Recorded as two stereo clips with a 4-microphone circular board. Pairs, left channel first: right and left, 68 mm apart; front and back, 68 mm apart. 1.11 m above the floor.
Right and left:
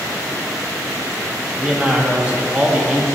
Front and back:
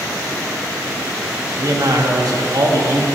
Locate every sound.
1.6 s a man speaking: 165° left, 1.1 m